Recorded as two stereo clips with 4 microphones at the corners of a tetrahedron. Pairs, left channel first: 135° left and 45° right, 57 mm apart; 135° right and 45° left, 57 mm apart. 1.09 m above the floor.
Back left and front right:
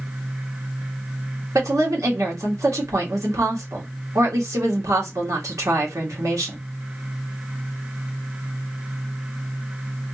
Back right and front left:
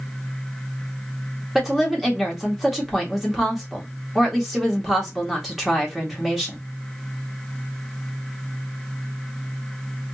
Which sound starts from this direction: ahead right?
A woman speaking, at 1.6 s.